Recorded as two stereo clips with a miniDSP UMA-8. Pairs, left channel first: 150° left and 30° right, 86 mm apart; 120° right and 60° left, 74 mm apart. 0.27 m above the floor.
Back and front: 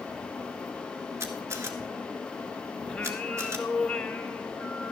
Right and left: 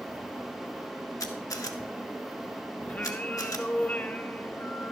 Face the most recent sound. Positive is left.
turn(degrees=-150)